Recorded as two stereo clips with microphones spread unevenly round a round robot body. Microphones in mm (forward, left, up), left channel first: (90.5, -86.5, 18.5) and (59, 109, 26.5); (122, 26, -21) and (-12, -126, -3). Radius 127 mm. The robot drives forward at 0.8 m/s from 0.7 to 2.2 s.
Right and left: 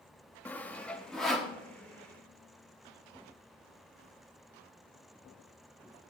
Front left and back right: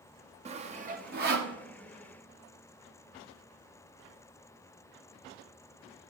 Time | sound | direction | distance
0.5 | sawing | 150° right | 0.7 m